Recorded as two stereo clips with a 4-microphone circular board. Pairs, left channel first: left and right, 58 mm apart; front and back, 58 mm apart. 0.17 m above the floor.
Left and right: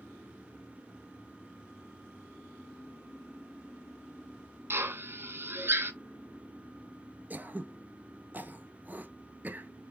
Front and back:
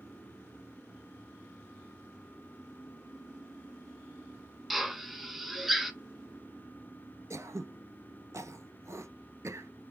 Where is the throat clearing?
145° right, 0.5 m.